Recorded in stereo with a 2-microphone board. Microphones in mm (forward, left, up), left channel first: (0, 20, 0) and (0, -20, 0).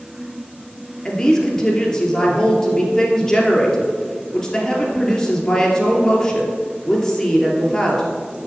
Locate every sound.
1.1 s a woman speaking: 15° left (ahead or behind), 2 m